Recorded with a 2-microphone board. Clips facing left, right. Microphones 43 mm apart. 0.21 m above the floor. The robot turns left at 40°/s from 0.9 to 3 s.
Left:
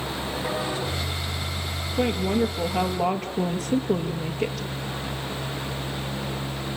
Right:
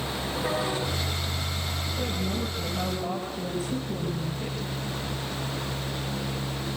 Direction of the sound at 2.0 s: 130° left.